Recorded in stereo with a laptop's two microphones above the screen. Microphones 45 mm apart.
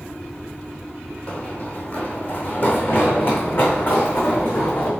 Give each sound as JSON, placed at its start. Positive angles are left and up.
{"t": 1.3, "sound": "running footsteps", "side_deg": 30, "distance_m": 1.8}